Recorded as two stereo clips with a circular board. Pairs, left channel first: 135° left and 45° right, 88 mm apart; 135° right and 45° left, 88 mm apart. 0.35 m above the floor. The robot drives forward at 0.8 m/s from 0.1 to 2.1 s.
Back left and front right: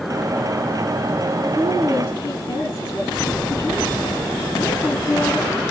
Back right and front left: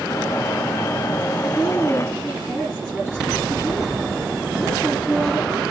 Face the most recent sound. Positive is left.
turn(degrees=145)